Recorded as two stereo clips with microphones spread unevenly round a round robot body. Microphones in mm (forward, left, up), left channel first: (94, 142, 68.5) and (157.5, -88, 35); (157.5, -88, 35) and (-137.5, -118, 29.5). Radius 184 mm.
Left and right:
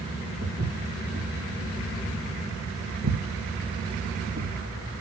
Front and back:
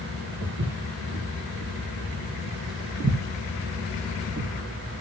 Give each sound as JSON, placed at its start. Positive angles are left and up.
{"t": 0.4, "sound": "footsteps", "azimuth_deg": -135, "distance_m": 5.0}